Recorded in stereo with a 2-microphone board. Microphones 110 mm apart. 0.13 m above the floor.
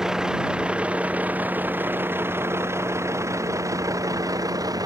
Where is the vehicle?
5° right (ahead or behind); by 4.9 s 35° right (ahead or behind).